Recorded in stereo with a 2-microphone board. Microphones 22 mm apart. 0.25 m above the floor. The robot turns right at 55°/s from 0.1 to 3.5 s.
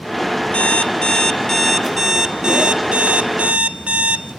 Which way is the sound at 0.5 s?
110° left.